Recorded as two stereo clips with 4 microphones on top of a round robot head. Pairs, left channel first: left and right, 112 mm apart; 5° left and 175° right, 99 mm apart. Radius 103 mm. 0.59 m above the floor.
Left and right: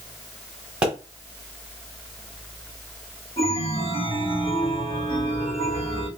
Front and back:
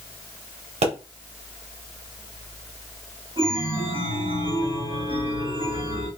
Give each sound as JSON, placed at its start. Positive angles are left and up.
{"t": 0.8, "sound": "a pop", "azimuth_deg": -170, "distance_m": 2.0}
{"t": 3.4, "sound": "a chime", "azimuth_deg": 155, "distance_m": 2.5}